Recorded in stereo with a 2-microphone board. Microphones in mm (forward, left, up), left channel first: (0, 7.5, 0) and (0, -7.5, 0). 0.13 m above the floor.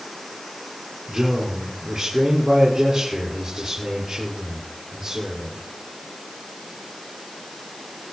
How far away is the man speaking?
About 6 m.